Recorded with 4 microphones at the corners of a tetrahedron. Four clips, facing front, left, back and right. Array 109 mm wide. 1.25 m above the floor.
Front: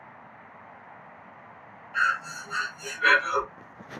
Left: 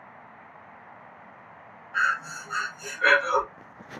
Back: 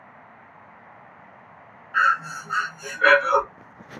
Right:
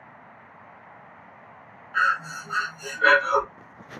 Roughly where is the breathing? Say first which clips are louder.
Right 2 dB, back 6 dB; behind.